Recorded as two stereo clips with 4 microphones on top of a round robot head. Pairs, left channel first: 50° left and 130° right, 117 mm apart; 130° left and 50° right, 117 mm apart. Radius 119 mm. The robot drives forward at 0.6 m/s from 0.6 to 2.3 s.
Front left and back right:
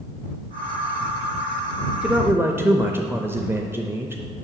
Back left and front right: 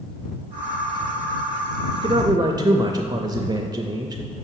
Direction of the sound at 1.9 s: 45° right.